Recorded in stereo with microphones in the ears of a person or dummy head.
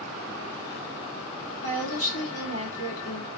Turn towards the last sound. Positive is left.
turn(degrees=70)  # may be behind; listen again after turning